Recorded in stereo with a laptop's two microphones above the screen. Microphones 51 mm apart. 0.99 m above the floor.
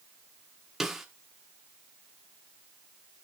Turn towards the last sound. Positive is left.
turn(degrees=-5)  # may be behind; listen again after turning